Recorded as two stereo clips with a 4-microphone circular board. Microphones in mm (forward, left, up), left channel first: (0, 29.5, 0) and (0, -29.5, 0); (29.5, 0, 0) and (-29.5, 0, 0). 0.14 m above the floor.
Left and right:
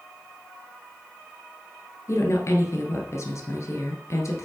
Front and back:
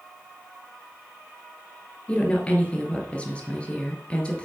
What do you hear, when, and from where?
2.1 s a woman speaking: 65° left, 2 m